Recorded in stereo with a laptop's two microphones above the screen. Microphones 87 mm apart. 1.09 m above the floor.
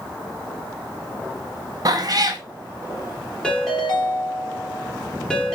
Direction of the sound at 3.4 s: 10° left (ahead or behind).